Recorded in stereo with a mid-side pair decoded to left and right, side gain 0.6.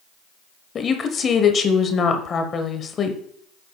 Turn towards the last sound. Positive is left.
turn(degrees=35)